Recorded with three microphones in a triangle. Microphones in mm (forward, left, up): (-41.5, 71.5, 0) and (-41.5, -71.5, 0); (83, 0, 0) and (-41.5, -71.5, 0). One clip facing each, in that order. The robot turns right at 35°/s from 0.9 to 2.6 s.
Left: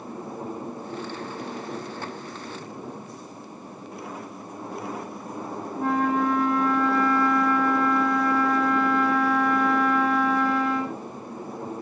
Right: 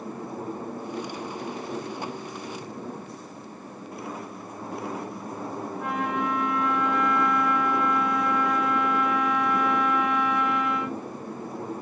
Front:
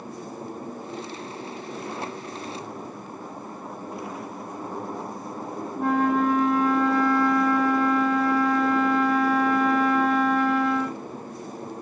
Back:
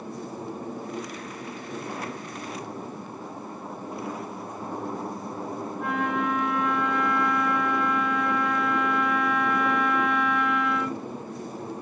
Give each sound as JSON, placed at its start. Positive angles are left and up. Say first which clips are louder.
{"t": 5.8, "sound": "a flute", "louder": "left 6 dB, front 7 dB", "azimuth_deg": 60, "distance_m": 0.5}